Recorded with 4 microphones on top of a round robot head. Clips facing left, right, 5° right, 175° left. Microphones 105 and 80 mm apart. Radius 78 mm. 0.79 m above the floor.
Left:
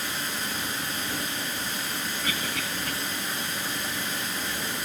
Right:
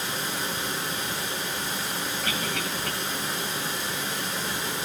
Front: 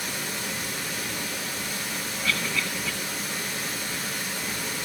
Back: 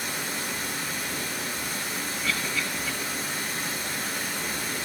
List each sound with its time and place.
0.0 s running water: 90° right, 5.5 m
2.2 s a cough: 60° right, 9 m